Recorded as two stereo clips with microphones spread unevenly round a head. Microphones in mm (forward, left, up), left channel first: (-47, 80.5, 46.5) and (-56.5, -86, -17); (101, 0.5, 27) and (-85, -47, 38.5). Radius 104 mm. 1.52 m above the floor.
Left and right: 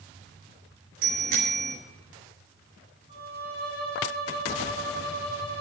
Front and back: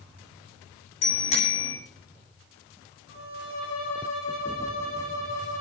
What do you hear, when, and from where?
1.0 s a bicycle bell: 45° right, 10 m
3.1 s a violin: 50° left, 8 m